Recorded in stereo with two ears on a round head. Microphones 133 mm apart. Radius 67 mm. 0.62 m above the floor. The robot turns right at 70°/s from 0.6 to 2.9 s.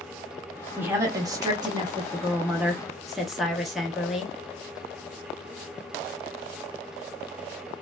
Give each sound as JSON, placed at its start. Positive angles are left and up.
{"t": 0.8, "sound": "a woman speaking", "side_deg": -10, "distance_m": 0.9}